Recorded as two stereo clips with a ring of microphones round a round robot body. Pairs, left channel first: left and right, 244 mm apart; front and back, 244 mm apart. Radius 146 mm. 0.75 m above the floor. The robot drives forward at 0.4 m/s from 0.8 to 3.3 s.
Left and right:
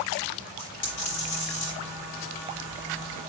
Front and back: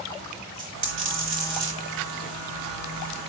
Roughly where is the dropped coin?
Behind left.